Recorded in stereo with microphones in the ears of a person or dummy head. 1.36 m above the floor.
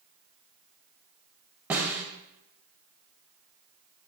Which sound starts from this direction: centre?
A snare drum, at 1.7 s.